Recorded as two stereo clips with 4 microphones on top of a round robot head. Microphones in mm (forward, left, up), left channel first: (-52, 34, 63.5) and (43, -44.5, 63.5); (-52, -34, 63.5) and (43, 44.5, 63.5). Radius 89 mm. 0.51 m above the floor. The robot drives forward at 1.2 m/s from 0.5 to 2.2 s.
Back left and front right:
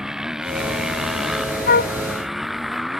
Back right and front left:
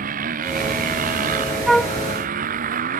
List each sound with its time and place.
0.0 s a motorcycle: 45° left; by 3.0 s 50° left
1.7 s a flute: 125° left; by 1.9 s 140° left